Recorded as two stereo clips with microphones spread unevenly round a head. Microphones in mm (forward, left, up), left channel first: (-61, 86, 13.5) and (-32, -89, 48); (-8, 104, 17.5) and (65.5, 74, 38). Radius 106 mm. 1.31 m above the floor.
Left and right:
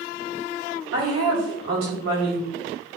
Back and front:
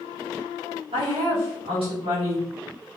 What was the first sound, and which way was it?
A woman speaking, 55° right.